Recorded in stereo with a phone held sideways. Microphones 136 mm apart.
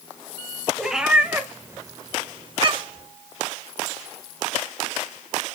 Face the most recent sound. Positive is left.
turn(degrees=-40)  # may be behind; listen again after turning